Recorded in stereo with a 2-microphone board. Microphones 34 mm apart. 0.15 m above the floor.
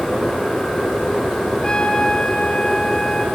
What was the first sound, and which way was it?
A trumpet, 25° left (ahead or behind).